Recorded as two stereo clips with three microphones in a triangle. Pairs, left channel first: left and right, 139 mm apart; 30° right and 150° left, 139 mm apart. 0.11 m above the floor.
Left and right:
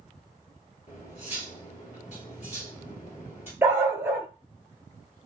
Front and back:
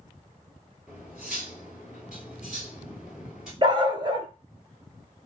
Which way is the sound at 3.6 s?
160° right.